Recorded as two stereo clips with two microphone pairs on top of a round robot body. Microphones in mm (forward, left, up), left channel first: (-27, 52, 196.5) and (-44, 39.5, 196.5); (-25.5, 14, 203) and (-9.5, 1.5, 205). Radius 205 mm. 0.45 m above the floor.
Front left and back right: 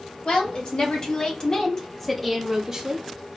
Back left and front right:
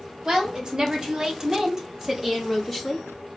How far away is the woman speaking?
About 1.8 m.